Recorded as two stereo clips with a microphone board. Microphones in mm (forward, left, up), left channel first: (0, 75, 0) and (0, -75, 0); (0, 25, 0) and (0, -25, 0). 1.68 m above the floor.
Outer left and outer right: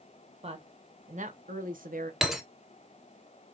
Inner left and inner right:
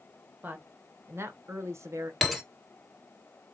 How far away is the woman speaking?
About 1.5 m.